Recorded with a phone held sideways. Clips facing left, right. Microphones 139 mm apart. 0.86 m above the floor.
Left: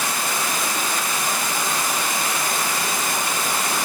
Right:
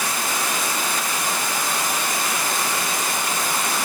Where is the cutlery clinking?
I don't hear cutlery clinking.